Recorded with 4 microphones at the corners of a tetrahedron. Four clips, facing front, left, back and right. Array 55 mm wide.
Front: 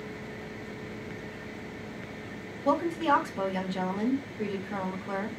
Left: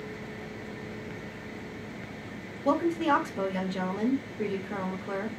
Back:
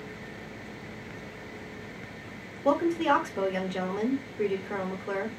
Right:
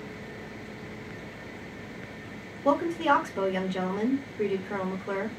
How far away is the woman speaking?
About 1.6 m.